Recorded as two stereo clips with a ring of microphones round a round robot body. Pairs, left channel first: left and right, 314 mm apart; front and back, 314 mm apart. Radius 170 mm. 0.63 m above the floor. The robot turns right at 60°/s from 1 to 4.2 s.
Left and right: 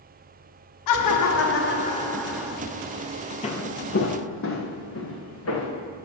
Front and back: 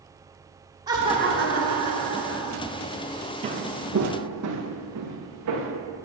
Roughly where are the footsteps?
Behind left.